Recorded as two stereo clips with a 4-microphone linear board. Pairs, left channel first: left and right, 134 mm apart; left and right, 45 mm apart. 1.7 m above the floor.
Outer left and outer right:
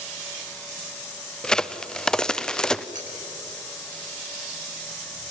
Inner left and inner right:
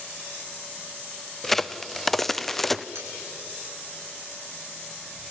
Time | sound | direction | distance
1.4 | a crack | 5° left (ahead or behind) | 0.6 m
3.0 | cutlery clinking | 70° right (ahead or behind) | 6.5 m